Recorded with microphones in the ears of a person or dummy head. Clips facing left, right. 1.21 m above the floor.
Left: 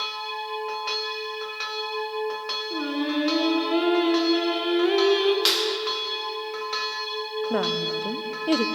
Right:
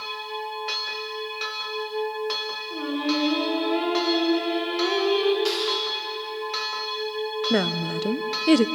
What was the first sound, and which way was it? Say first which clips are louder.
Singing: even; 25° left (ahead or behind).